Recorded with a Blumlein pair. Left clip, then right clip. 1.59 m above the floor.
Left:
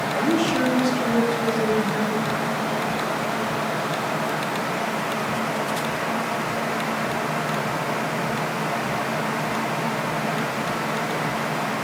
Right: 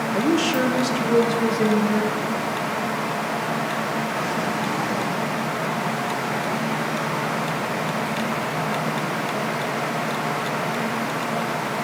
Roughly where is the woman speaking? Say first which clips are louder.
Right 1 dB; ahead right.